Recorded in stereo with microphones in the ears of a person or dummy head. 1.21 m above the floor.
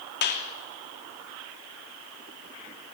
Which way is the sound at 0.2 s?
60° left (ahead or behind).